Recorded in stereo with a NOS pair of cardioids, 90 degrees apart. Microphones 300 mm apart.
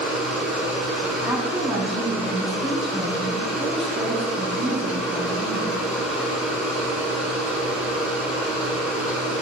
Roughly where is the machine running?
Ahead.